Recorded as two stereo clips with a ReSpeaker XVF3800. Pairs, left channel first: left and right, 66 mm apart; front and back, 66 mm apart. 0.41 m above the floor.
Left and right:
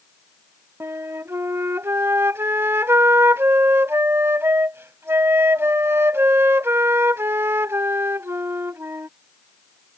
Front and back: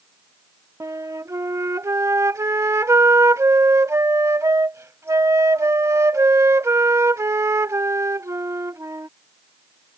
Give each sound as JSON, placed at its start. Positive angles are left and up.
{"t": 0.8, "sound": "a flute", "azimuth_deg": -140}